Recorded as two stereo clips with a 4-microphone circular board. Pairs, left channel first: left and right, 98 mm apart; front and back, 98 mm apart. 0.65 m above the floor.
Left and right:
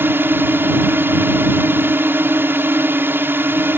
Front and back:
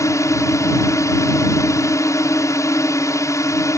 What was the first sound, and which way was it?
A drone, 35° right.